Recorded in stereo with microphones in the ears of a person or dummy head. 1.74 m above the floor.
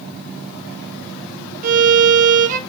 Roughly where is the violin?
Right.